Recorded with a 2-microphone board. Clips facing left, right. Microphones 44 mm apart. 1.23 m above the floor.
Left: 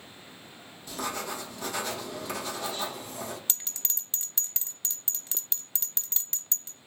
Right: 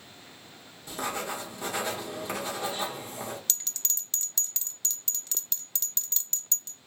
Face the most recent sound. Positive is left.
turn(degrees=20)  # may be behind; listen again after turning